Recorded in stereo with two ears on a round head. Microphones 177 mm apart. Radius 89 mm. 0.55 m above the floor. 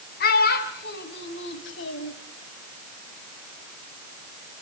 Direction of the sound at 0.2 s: 50° left (ahead or behind).